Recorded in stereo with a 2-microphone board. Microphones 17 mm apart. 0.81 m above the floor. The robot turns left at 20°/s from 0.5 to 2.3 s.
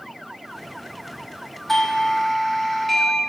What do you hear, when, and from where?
1.7 s a doorbell: 5° left (ahead or behind), 1.1 m; by 3.2 s centre (ahead or behind), 1.1 m